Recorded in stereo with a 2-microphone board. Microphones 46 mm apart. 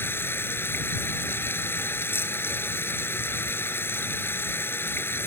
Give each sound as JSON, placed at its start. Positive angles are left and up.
{"t": 0.0, "sound": "running water", "side_deg": 55}